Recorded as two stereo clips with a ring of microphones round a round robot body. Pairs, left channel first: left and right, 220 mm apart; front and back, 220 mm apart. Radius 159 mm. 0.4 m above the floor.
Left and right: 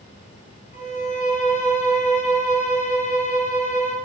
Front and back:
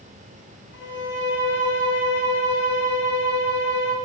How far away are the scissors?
I don't hear scissors.